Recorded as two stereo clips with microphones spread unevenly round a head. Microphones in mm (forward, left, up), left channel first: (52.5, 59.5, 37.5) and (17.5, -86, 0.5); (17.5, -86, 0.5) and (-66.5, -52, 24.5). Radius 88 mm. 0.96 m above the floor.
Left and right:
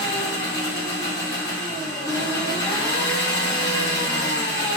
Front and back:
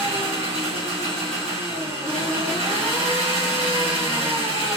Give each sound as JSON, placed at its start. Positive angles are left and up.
{"t": 0.0, "sound": "an engine running", "azimuth_deg": 150, "distance_m": 1.1}